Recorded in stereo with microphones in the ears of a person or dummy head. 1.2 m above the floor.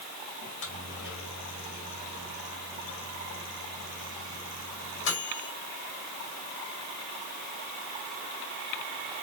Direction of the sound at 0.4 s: 70° left (ahead or behind).